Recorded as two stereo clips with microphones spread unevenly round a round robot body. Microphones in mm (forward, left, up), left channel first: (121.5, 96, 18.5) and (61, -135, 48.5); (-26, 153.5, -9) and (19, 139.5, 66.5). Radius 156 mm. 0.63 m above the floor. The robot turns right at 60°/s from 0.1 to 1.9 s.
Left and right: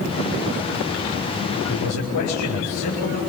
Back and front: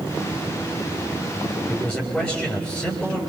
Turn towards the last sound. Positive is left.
turn(degrees=85)